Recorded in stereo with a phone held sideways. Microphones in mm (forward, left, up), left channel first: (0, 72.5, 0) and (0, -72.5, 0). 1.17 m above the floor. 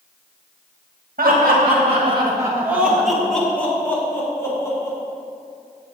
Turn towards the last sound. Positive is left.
turn(degrees=25)  # may be behind; listen again after turning